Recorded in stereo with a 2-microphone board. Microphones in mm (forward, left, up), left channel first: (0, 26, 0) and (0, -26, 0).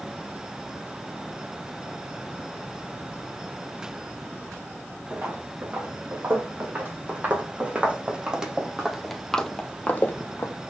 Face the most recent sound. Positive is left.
turn(degrees=50)  # may be behind; listen again after turning